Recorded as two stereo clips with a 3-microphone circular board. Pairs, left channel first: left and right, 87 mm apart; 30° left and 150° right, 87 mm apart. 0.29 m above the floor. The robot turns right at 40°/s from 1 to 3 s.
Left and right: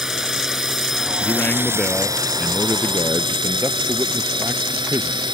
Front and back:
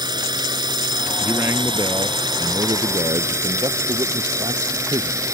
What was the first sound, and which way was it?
A drone, 175° right.